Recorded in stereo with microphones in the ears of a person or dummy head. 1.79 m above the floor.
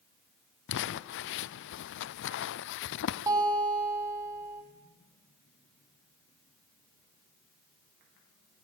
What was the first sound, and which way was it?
Crumpling, 65° left (ahead or behind).